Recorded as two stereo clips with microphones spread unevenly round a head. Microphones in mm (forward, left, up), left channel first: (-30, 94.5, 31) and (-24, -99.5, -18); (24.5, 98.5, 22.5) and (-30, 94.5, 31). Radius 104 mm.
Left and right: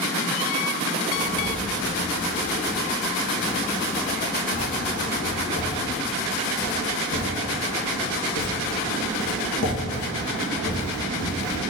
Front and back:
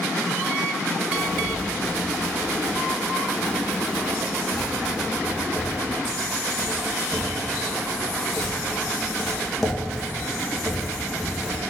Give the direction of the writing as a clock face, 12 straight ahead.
9 o'clock.